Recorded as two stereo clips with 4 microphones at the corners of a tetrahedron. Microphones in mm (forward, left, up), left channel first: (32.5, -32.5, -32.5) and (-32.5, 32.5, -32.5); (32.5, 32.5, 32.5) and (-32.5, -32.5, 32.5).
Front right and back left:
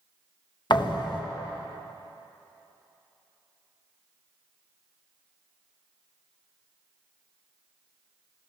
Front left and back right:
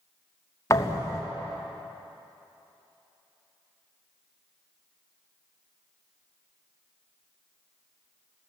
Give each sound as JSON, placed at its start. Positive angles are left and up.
{"t": 0.7, "sound": "a thud", "azimuth_deg": -10, "distance_m": 3.0}